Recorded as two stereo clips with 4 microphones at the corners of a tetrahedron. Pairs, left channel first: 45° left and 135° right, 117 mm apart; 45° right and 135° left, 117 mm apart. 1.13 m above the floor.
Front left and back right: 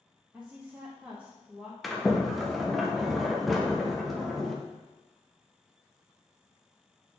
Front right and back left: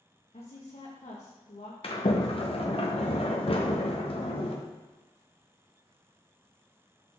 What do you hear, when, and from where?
0.3 s a woman speaking: 60° right, 1.1 m
1.8 s a sliding door: 45° right, 0.8 m